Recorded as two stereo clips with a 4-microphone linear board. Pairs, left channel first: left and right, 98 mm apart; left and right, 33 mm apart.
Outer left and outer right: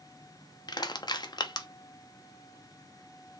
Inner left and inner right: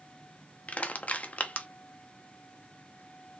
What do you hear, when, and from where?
0.7 s crushing: 50° left (ahead or behind), 0.8 m